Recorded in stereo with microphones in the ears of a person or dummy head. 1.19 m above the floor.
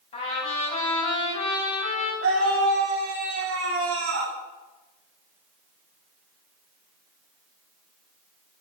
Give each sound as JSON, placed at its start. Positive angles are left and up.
{"t": 0.1, "sound": "a trumpet", "side_deg": 40, "distance_m": 6.5}
{"t": 2.2, "sound": "a scream", "side_deg": -55, "distance_m": 2.5}